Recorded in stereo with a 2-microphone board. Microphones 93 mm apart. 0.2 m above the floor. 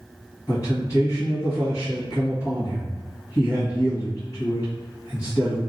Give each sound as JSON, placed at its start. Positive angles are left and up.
{"t": 0.5, "sound": "a man speaking", "side_deg": 40, "distance_m": 1.5}